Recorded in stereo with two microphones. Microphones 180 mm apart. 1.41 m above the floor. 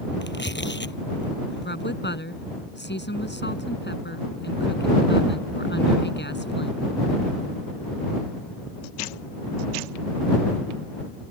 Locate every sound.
0.2 s tearing paper: 80° left
1.6 s a woman speaking: 75° left (ahead or behind)